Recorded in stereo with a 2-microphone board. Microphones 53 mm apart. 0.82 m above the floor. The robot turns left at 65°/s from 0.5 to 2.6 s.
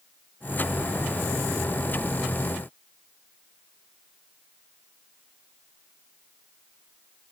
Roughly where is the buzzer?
I don't hear a buzzer.